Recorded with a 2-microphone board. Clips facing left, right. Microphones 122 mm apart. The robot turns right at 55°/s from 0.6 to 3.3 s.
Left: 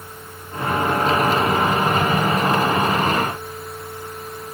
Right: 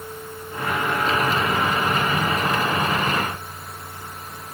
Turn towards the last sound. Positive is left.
No sound to turn to.